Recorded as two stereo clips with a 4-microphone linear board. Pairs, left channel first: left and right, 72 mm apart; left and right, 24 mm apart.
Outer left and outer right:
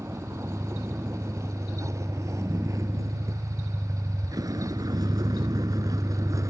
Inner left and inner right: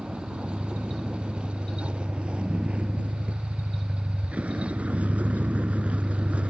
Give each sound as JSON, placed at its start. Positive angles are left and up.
{"t": 0.0, "sound": "a vehicle", "side_deg": -35}